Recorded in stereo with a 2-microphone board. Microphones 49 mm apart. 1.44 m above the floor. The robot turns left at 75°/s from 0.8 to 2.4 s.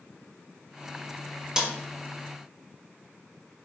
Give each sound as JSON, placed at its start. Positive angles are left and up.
{"t": 1.6, "sound": "a snare drum", "side_deg": -15, "distance_m": 0.8}